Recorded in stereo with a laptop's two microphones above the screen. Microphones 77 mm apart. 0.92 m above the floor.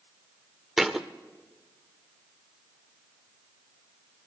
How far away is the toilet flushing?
No toilet flushing in this recording.